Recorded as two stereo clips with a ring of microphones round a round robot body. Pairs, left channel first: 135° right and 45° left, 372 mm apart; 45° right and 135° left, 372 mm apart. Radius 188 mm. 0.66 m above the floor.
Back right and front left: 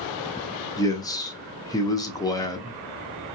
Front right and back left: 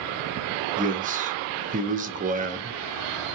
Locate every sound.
0.8 s a man speaking: 160° left, 0.6 m